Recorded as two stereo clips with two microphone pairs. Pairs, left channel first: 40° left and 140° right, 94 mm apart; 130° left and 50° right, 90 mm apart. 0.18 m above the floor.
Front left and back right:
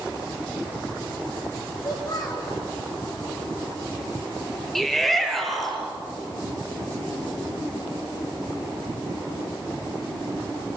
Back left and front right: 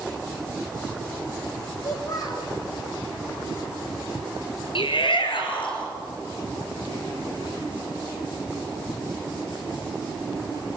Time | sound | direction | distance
1.8 | a child speaking | 85° left | 6 m
4.8 | a shout | 130° left | 3.5 m